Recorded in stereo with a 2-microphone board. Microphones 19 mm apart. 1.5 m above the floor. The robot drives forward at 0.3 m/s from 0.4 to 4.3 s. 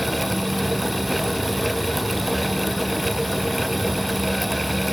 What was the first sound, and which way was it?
Only background noise.